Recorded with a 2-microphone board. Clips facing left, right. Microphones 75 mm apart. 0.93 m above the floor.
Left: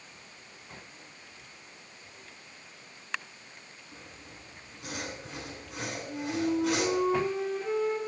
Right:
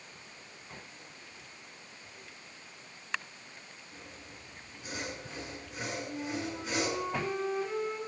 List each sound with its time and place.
3.9 s sawing: 85° left, 8.5 m
6.1 s a flute: 85° left, 8 m